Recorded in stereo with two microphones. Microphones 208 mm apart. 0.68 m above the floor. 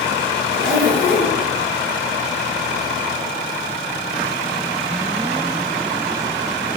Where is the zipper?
65° right (ahead or behind), 5 m.